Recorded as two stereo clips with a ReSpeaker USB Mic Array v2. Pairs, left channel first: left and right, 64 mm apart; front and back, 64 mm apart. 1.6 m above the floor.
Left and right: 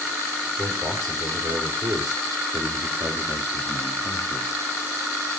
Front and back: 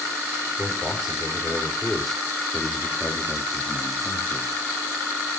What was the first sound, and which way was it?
A man speaking, 100° right.